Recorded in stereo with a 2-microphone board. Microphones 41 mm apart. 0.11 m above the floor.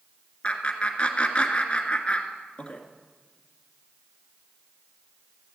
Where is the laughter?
30° left (ahead or behind), 1.6 m.